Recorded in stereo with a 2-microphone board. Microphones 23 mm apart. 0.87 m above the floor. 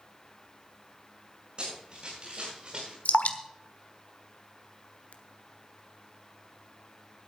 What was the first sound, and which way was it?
Running footsteps, 45° right (ahead or behind).